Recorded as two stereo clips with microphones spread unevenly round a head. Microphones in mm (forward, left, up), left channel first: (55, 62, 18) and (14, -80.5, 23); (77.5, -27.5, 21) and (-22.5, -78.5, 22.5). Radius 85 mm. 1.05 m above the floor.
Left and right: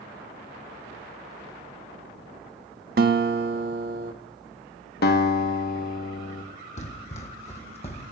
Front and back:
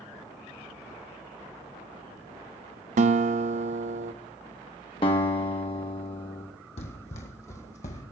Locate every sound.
3.0 s a guitar: 145° right, 0.7 m
5.0 s a guitar: 80° left, 1.0 m
6.8 s running footsteps: 45° left, 1.6 m; by 8.0 s 25° left, 2 m